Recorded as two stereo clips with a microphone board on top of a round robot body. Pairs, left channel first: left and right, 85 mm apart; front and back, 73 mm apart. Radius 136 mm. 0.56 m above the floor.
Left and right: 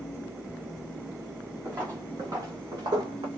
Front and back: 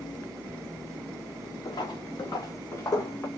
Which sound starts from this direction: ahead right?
Footsteps, at 1.6 s.